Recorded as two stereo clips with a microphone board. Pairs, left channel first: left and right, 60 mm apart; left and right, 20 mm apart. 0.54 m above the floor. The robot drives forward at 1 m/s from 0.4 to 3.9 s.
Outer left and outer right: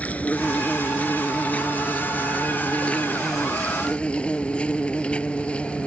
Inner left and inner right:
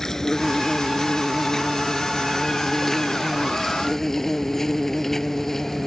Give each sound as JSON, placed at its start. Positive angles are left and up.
{"t": 0.0, "sound": "an insect", "side_deg": 25}